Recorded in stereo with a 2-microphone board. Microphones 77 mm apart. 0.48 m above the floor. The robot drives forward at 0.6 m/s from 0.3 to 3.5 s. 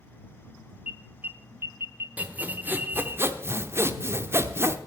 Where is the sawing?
20° right (ahead or behind), 1.2 m; by 4.8 s 30° right (ahead or behind), 0.7 m.